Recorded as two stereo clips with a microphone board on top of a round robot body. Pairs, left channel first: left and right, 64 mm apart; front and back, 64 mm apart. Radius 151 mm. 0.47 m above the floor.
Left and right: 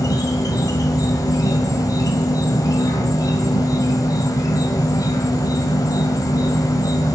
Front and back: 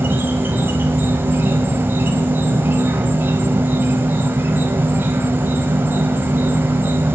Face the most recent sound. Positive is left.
turn(degrees=120)